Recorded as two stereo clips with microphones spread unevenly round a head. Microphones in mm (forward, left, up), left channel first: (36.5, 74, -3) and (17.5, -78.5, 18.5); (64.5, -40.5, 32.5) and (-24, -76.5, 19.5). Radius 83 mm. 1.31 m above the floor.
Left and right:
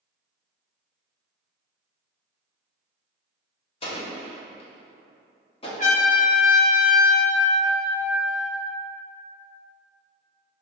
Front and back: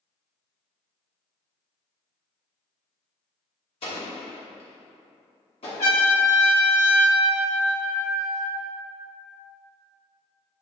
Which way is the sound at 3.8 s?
25° left.